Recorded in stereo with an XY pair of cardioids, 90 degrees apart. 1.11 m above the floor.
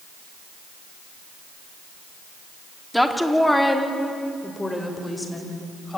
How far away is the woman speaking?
About 2.5 m.